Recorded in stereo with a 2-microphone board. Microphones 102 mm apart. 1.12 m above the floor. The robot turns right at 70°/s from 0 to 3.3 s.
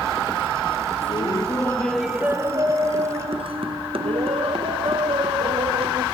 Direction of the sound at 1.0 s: 115° left.